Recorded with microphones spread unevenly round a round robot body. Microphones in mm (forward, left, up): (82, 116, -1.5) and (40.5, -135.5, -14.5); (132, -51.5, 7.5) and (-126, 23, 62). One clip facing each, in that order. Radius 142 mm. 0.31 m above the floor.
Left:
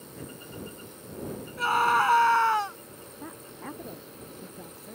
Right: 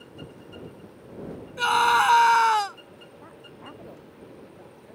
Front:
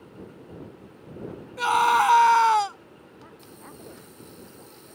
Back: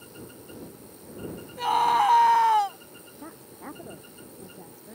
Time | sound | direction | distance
1.6 | a scream | 70° right | ?
3.2 | a woman speaking | 130° left | ?